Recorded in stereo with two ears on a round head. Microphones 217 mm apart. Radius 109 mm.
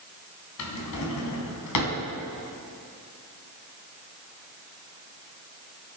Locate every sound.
0.6 s a drawer: 80° left, 3 m